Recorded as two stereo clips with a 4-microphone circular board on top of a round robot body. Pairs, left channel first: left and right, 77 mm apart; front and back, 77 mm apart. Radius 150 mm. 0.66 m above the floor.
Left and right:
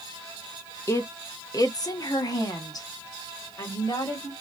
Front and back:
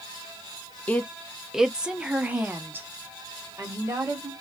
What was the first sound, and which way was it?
A woman speaking, 65° left.